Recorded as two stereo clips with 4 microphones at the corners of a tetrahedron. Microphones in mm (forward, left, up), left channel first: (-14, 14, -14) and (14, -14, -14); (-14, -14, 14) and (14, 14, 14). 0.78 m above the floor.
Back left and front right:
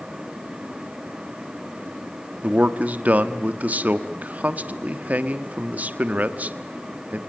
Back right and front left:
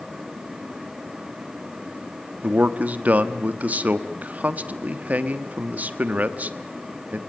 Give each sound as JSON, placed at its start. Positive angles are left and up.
{"t": 2.4, "sound": "a man speaking", "azimuth_deg": 0, "distance_m": 1.1}